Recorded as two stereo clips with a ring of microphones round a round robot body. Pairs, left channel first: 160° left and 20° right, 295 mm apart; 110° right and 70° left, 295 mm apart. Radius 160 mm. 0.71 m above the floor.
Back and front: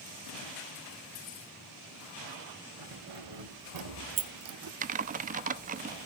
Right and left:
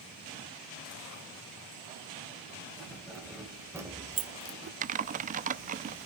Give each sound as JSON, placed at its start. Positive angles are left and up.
{"t": 2.8, "sound": "keys jangling", "azimuth_deg": -25, "distance_m": 3.0}
{"t": 4.8, "sound": "typing on a keyboard", "azimuth_deg": 20, "distance_m": 0.5}